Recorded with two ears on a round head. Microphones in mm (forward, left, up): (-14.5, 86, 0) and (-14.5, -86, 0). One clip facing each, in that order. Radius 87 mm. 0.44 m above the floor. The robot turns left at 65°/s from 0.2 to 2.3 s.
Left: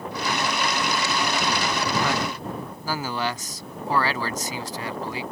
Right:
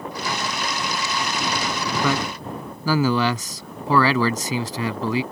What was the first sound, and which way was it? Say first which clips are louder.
A man speaking: right 3 dB; 75° right (ahead or behind).